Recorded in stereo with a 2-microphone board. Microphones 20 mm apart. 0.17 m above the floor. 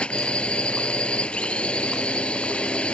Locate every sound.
0.0 s a drone: 70° left (ahead or behind)